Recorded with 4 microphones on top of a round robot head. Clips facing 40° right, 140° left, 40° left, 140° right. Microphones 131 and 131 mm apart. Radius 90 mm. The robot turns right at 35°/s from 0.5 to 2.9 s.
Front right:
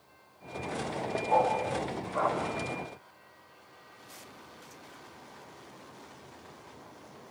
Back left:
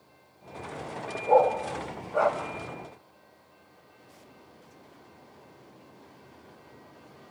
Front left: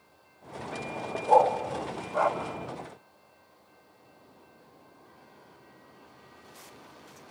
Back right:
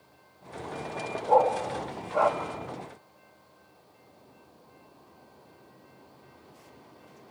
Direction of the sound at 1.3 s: 125° left.